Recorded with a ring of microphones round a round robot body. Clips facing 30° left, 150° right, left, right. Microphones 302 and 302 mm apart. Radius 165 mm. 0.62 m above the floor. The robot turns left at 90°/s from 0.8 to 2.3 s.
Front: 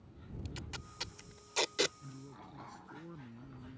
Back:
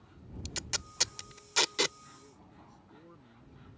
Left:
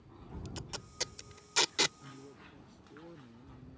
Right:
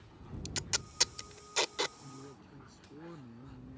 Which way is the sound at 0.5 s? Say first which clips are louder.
Back 2 dB, right 2 dB; 140° right.